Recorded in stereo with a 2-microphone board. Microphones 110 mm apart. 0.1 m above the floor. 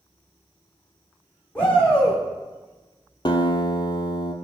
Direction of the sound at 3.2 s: 45° left (ahead or behind).